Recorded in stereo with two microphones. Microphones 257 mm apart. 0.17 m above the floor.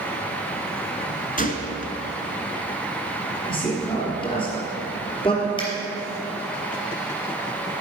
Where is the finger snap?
20° left (ahead or behind), 4 m.